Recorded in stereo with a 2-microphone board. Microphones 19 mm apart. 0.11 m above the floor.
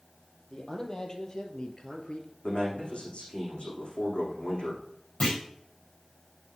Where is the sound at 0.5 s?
30° left (ahead or behind), 3 m; by 2.3 s 50° left (ahead or behind), 1.7 m.